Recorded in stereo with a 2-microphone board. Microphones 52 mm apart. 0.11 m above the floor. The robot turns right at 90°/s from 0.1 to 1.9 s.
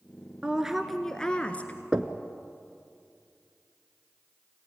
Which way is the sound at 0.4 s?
20° right (ahead or behind).